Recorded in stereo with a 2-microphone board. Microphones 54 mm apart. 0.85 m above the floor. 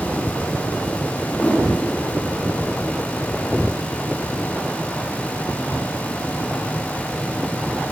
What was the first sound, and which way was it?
A whoosh, 25° left (ahead or behind).